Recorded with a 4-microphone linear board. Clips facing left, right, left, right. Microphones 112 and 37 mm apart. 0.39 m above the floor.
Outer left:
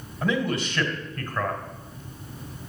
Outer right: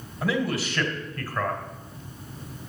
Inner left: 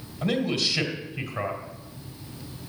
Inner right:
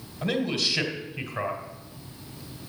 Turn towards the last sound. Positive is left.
turn(degrees=-5)  # may be behind; listen again after turning